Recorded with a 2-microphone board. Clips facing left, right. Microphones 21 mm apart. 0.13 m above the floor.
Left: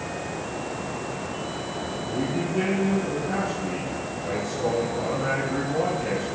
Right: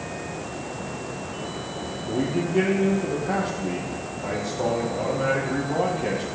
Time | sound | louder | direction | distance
2.1 | a man speaking | right 4 dB | 40° right (ahead or behind) | 4 m